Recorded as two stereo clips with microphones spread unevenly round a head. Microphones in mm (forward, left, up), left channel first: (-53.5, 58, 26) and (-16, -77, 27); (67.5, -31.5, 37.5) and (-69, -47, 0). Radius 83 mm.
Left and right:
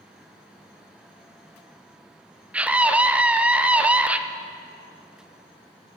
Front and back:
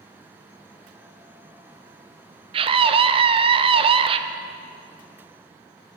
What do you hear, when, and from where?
2.5 s a scream: 155° right, 0.5 m